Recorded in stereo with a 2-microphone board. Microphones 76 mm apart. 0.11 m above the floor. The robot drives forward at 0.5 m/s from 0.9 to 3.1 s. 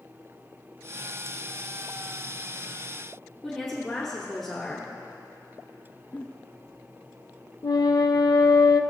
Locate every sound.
3.4 s a woman speaking: 5° left (ahead or behind), 1.3 m
6.1 s a giggle: 20° left (ahead or behind), 1.7 m
7.6 s a flute: 75° left (ahead or behind), 0.5 m